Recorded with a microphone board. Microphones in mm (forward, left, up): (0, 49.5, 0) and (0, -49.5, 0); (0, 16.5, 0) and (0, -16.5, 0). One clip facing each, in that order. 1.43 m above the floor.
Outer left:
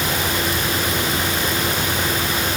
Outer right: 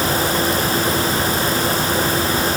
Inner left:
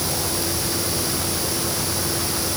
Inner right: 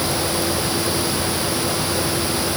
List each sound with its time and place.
Only background noise.